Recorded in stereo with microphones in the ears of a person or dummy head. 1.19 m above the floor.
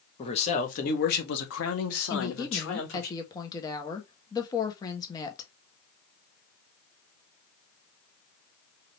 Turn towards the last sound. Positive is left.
turn(degrees=15)  # may be behind; listen again after turning